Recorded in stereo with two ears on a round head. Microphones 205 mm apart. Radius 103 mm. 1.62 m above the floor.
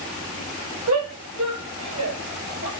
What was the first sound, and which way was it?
A shout, 70° right (ahead or behind).